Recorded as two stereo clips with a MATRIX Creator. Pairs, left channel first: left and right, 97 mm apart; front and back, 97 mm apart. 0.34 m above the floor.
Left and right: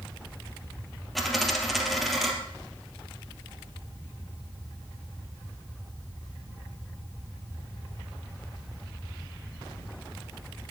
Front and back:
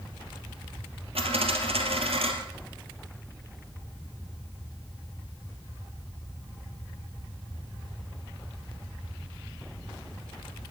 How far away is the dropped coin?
About 2 m.